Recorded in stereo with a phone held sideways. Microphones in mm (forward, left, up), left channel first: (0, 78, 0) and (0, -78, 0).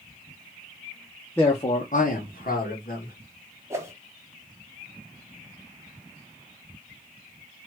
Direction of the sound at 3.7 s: 20° right (ahead or behind).